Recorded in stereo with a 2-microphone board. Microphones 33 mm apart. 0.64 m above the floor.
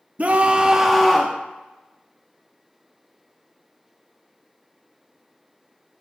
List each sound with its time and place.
0.2 s a scream: 45° right (ahead or behind), 0.7 m; by 1.4 s 20° left (ahead or behind), 0.7 m